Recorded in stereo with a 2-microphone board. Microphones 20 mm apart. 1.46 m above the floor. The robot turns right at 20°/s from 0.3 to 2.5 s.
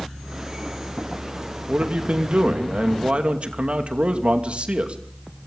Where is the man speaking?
80° right, 2.5 m; by 5.0 s 65° right (ahead or behind), 2.5 m.